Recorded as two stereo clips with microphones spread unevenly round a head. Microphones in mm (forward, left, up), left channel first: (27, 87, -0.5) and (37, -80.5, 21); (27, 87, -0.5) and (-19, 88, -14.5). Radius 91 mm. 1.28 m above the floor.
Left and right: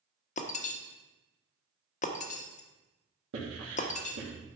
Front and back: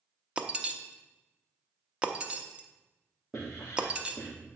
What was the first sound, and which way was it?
Breaking glass, 105° left.